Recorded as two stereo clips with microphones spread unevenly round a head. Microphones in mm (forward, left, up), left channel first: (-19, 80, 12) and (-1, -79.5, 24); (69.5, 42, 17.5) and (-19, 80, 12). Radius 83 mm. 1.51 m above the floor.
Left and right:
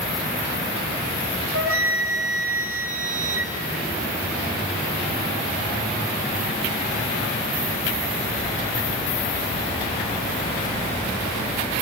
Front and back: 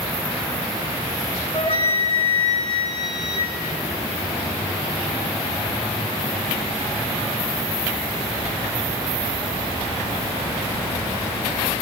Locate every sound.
1.5 s a flute: 80° right, 3.5 m